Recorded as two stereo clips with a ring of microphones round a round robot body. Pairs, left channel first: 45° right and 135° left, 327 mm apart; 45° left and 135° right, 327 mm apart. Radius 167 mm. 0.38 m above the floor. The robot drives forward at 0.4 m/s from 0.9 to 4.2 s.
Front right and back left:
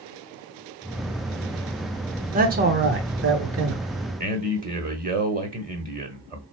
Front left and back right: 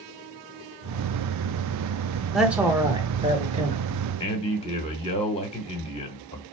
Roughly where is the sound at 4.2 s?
Left.